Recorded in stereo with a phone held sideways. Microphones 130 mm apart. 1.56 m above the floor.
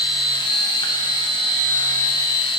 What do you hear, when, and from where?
0.0 s a machine running: 35° left (ahead or behind), 1.4 m